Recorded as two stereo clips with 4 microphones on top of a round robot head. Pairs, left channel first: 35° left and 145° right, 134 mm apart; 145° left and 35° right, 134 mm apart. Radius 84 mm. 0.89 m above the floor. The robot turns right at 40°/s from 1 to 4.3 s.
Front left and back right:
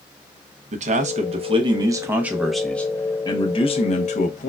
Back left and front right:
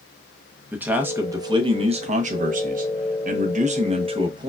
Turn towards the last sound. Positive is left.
turn(degrees=15)